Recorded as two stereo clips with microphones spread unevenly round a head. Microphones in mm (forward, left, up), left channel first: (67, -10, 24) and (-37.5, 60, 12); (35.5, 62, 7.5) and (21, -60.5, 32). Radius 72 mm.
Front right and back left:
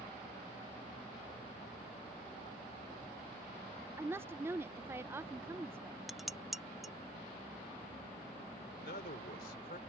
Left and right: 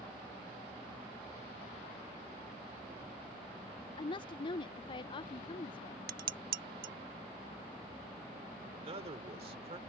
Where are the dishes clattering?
125° right.